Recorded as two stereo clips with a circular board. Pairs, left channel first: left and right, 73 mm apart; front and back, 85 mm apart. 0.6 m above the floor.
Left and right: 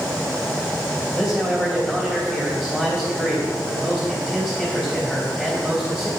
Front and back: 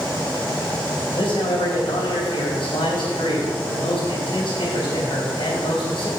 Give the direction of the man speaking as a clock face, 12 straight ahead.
12 o'clock.